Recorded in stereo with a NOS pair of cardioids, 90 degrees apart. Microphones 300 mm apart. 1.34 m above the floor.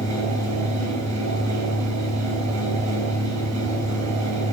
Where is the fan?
70° right, 4 m.